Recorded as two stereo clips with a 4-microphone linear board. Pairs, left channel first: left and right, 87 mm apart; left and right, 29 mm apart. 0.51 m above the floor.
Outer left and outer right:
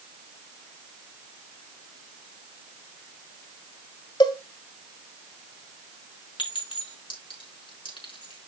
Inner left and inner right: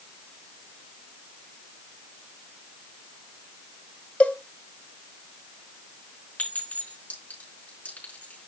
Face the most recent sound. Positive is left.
turn(degrees=70)  # may be behind; listen again after turning